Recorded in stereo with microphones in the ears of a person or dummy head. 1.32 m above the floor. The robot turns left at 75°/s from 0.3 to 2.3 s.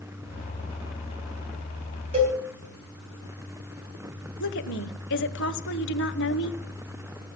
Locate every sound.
2.1 s a cowbell: 30° right (ahead or behind), 3 m; by 2.4 s 20° right (ahead or behind), 3 m
4.4 s a woman speaking: 60° left (ahead or behind), 0.9 m